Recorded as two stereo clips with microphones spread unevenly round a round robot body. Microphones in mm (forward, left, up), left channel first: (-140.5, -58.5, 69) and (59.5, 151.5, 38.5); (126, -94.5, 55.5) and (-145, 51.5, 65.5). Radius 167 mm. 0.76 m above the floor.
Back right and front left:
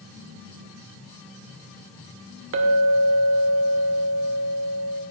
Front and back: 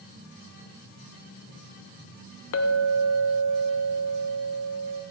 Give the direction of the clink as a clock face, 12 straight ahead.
12 o'clock.